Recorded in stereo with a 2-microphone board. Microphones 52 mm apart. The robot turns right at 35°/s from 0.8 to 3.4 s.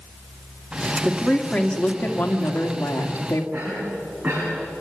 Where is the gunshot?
No gunshot in this recording.